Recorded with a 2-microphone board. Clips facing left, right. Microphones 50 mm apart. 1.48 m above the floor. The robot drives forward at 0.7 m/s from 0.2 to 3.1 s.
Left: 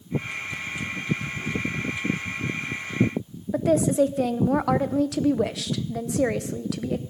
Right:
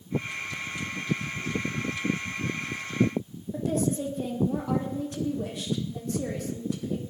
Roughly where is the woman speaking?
Left.